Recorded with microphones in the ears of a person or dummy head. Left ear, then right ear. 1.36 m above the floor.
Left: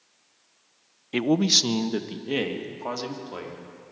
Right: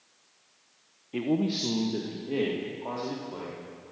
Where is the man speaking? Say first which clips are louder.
Left 8 dB; 65° left (ahead or behind), 0.5 m; by 3.6 s 60° left (ahead or behind), 2.5 m.